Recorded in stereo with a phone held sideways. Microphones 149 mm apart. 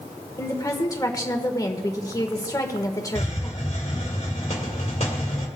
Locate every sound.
0.4 s a woman speaking: 25° left (ahead or behind), 1.4 m
3.1 s a hiss: 50° left (ahead or behind), 2 m